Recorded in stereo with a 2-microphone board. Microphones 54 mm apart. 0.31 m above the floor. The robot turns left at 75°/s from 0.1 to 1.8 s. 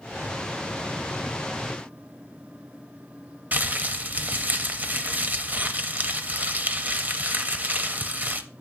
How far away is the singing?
No singing in this recording.